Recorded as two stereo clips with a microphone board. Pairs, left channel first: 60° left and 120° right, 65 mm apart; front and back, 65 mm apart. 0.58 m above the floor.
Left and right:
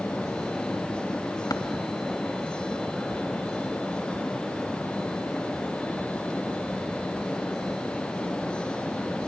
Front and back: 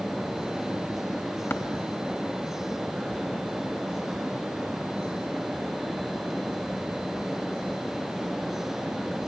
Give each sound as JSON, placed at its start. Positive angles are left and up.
{"t": 1.5, "sound": "tapping", "azimuth_deg": 45, "distance_m": 3.0}